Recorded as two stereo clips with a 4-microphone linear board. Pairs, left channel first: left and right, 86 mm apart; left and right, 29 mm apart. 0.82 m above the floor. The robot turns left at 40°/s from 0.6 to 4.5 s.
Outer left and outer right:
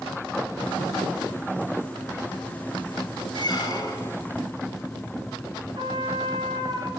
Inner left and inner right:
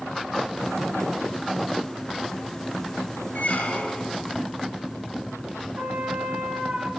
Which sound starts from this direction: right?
A trumpet, at 5.8 s.